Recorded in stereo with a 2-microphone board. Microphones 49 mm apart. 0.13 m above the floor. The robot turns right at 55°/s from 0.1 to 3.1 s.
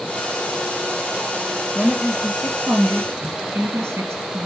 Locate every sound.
1.8 s a woman speaking: 165° right, 1.9 m; by 4.5 s 90° right, 1.9 m